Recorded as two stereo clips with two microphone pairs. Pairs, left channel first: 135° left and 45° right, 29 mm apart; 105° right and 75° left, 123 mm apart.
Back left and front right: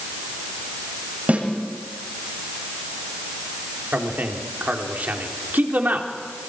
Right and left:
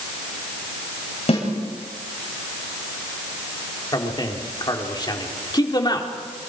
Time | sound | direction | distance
1.3 | a snare drum | 70° right | 8 m
3.9 | a man speaking | 55° right | 3 m